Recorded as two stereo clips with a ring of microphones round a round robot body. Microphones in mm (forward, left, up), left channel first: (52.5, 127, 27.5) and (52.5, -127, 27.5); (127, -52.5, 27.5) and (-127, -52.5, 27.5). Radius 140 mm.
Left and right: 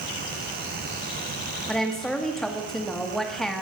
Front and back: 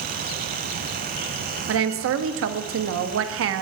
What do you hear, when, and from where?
1.7 s a woman speaking: straight behind, 1.0 m